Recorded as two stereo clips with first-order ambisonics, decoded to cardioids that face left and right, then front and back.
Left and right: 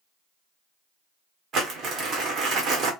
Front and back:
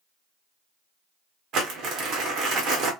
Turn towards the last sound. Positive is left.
turn(degrees=-140)